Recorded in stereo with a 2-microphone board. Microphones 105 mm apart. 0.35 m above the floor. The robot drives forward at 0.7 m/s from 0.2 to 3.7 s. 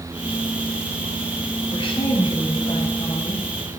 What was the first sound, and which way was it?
A woman speaking, 60° left (ahead or behind).